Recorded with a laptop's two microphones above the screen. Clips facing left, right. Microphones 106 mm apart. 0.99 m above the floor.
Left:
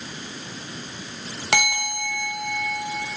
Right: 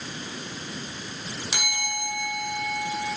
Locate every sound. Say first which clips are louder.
1.5 s a bell: left 10 dB; 85° left, 3 m